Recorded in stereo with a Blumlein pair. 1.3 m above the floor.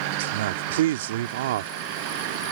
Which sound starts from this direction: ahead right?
A man speaking, at 0.2 s.